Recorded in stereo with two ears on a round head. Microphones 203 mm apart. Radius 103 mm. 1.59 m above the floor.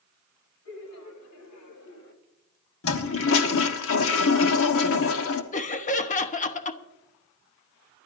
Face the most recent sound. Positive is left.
turn(degrees=35)  # may be behind; listen again after turning